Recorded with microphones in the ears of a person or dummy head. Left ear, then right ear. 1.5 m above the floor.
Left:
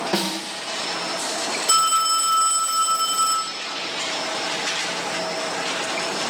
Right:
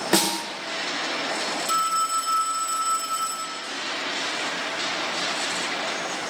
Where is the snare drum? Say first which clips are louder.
Right 5 dB; 70° right (ahead or behind), 1.9 m.